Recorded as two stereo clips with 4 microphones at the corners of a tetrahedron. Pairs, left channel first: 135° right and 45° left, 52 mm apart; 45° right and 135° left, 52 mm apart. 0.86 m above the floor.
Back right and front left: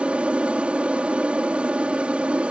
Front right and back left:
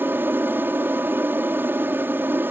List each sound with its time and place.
0.0 s an aircraft: 105° left